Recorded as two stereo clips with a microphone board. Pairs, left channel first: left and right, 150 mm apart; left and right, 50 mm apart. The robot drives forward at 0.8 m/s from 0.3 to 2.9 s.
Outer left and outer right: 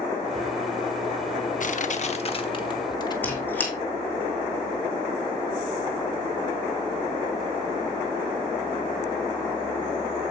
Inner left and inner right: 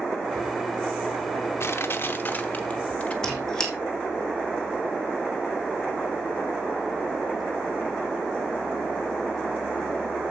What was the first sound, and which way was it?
Crushing, 60° left (ahead or behind).